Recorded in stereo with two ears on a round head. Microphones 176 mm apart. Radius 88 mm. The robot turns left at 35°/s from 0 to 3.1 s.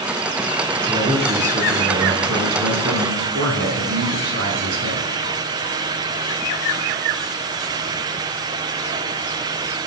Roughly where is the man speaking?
Ahead right.